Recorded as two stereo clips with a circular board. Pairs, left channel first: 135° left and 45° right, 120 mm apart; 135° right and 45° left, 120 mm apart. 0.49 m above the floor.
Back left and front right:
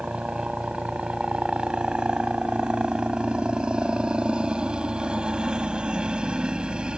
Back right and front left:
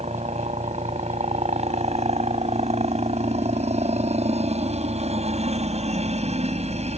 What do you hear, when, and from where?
0.0 s a helicopter: 35° left